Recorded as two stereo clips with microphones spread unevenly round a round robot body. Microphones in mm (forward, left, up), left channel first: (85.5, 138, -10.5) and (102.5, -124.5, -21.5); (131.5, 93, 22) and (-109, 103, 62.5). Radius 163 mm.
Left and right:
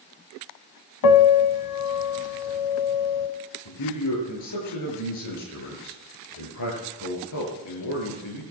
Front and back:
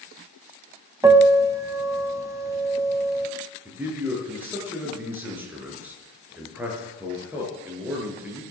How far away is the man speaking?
About 7 m.